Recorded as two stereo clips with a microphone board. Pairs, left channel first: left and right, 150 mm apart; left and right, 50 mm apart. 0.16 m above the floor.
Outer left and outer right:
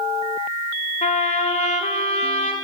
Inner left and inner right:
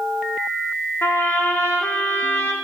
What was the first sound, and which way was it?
A trumpet, 50° left (ahead or behind).